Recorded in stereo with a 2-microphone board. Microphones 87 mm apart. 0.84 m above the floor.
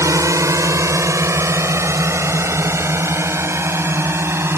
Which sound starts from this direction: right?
A drone, at 0.0 s.